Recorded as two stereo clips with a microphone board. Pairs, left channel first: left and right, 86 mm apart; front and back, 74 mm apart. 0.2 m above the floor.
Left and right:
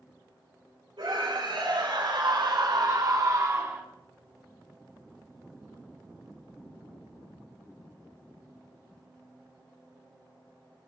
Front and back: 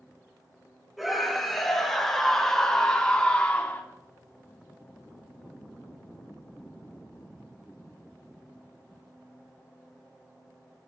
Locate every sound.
1.0 s a scream: 95° right, 4 m; by 3.8 s 40° right, 1.3 m